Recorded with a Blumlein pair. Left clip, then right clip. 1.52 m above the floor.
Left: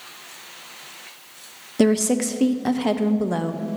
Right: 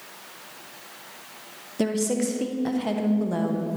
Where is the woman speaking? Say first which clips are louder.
Left 6 dB; 20° left, 0.6 m.